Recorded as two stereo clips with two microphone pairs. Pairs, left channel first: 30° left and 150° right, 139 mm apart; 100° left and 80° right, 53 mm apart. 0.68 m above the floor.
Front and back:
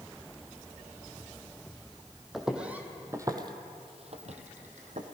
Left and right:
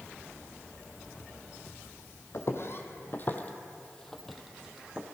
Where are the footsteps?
120° left, 1.6 m; by 5.0 s 150° right, 1.6 m.